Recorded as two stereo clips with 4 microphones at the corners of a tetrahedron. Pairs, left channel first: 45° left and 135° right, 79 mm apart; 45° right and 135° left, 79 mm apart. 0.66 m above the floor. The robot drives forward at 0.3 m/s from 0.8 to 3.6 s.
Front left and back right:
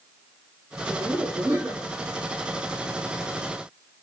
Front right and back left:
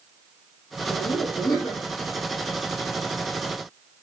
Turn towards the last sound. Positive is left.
turn(degrees=-105)